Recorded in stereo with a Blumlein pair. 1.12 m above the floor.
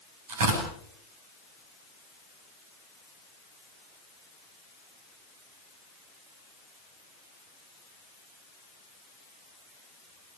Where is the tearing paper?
55° right, 8.5 m.